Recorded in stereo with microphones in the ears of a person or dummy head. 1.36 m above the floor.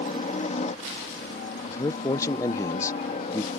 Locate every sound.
0.0 s a helicopter: 35° left (ahead or behind)
1.7 s a man speaking: 15° left (ahead or behind)